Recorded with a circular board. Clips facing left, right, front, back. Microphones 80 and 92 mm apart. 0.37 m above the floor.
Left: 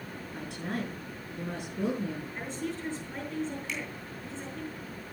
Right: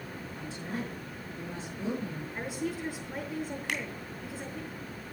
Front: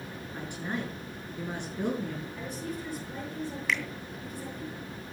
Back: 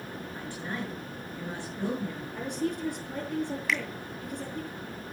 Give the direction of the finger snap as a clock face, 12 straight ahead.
3 o'clock.